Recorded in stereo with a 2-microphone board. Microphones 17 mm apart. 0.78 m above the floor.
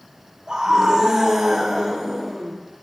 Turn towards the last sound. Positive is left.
turn(degrees=-30)  # may be behind; listen again after turning